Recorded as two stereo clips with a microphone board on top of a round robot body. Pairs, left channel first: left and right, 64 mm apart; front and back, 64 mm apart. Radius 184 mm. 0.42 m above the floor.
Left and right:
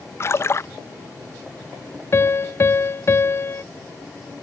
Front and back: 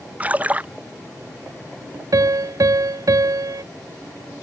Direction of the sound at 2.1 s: 145° left.